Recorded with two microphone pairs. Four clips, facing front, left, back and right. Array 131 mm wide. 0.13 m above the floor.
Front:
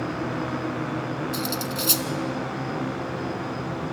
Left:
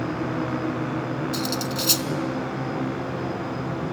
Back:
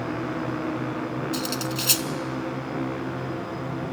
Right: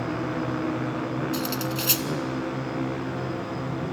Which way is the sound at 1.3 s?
160° right.